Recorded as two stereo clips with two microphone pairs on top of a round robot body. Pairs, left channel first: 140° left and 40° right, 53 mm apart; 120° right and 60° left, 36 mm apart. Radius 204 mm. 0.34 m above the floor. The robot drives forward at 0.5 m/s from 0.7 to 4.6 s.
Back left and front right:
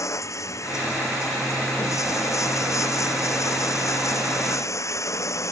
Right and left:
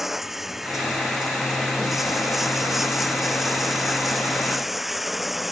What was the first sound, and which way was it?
Running water, 140° left.